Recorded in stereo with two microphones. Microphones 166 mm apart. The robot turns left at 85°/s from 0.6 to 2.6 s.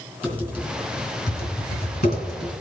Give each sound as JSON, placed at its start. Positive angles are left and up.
{"t": 0.2, "sound": "typing on a keyboard", "side_deg": -10, "distance_m": 3.5}